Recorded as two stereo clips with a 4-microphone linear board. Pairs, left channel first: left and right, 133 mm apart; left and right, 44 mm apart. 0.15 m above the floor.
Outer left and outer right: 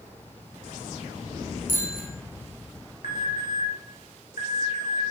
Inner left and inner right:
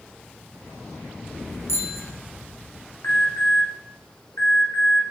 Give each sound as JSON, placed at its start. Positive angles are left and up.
{"t": 1.7, "sound": "a bicycle bell", "side_deg": 80, "distance_m": 5.5}
{"t": 3.0, "sound": "an alarm", "side_deg": 75, "distance_m": 5.5}